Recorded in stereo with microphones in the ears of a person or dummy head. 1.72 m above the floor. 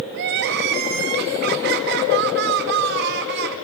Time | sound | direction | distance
0.1 | crying | 60° right (ahead or behind) | 1.6 m